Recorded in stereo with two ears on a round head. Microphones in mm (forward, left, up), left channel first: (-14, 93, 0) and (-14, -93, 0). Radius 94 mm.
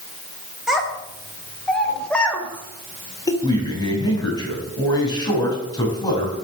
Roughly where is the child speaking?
Centre.